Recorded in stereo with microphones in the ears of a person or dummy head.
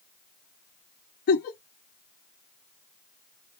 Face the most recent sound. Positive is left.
turn(degrees=50)  # may be behind; listen again after turning